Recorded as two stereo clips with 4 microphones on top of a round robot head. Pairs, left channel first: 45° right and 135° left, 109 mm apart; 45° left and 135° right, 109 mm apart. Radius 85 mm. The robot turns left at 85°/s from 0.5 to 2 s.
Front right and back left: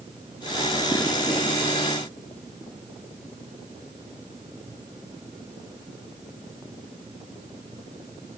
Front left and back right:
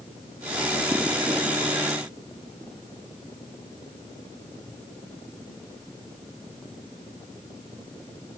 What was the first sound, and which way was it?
Only background noise.